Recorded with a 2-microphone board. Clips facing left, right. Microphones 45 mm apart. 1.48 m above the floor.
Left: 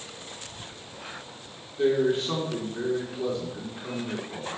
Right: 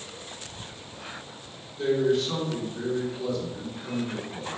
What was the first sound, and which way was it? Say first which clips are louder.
A man speaking: even; 30° left (ahead or behind).